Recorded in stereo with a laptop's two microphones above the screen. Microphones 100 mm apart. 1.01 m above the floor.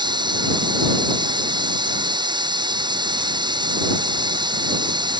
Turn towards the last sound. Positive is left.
turn(degrees=-50)  # may be behind; listen again after turning